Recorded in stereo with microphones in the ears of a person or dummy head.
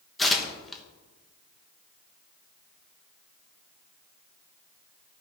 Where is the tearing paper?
Centre (ahead or behind), 1.3 m.